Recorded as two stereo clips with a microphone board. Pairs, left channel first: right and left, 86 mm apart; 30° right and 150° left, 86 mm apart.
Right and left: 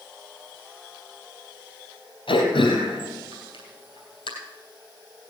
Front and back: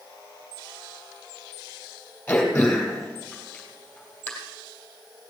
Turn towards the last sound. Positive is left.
turn(degrees=-100)